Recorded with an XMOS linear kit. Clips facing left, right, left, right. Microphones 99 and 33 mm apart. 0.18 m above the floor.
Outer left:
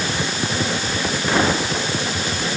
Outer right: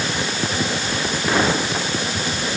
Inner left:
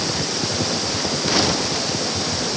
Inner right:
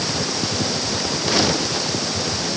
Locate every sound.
Only background noise.